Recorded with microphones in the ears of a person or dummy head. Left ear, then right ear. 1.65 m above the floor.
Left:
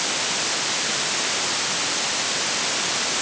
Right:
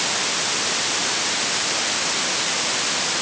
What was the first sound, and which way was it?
Only background noise.